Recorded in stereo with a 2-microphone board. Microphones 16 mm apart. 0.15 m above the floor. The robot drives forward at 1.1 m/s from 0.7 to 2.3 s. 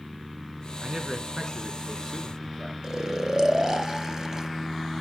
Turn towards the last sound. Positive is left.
turn(degrees=-35)  # may be behind; listen again after turning